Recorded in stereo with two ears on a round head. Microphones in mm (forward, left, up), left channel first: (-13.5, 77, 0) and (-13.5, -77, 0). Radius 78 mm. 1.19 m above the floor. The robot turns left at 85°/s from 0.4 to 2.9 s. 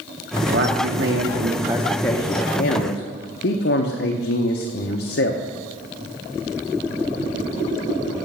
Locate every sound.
0.5 s a man speaking: 55° right, 0.7 m; by 5.4 s 100° left, 0.7 m